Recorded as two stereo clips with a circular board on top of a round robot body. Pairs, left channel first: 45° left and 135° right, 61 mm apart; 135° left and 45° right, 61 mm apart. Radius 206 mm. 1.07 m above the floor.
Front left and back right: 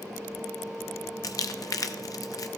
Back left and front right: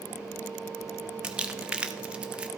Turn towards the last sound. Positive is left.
turn(degrees=30)